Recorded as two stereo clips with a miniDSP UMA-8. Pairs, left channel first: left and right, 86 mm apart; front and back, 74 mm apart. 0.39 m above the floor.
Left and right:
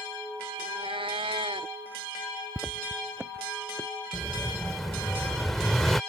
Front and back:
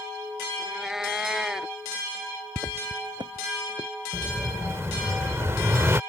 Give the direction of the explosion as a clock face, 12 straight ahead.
6 o'clock.